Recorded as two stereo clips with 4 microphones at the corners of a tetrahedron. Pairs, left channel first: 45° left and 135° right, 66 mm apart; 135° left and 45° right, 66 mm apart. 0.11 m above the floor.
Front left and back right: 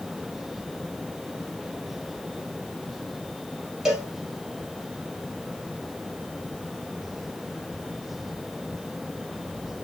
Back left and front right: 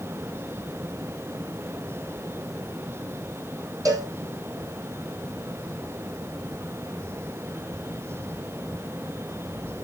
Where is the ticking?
I don't hear ticking.